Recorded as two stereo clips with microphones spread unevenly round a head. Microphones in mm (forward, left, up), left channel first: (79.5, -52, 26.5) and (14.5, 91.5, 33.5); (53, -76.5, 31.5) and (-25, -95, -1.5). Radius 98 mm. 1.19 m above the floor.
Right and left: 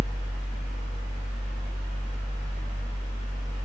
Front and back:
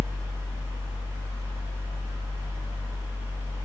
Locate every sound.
0.0 s a fan: 90° right, 0.9 m